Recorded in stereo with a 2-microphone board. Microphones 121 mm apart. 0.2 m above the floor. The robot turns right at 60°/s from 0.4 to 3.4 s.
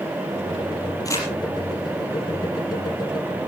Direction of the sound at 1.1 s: 30° left (ahead or behind).